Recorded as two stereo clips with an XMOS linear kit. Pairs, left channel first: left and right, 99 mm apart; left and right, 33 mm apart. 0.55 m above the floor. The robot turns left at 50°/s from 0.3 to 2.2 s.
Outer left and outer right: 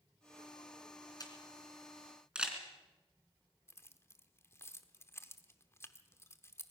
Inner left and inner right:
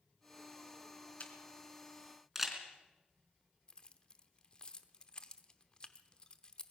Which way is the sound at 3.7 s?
25° left (ahead or behind).